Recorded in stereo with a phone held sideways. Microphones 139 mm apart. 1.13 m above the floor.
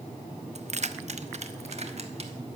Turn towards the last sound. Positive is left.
turn(degrees=-50)  # may be behind; listen again after turning